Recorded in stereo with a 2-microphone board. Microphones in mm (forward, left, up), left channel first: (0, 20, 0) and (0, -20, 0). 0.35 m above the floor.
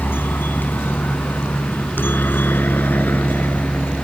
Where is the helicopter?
60° left (ahead or behind); by 4.0 s 55° left (ahead or behind).